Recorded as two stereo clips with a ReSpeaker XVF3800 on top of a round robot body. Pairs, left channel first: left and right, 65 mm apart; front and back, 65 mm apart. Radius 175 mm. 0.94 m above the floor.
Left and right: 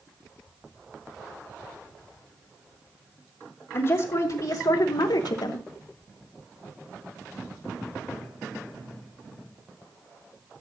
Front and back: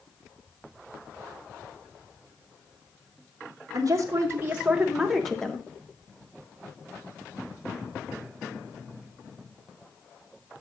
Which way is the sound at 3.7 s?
135° left.